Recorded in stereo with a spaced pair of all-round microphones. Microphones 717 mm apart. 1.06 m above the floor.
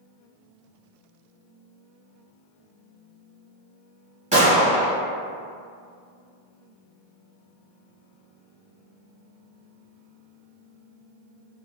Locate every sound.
4.3 s a gunshot: 10° right (ahead or behind), 1.3 m